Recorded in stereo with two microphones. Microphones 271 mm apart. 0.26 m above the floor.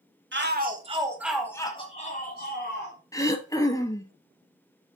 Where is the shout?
40° right (ahead or behind), 1.3 m; by 3.0 s 45° left (ahead or behind), 2 m.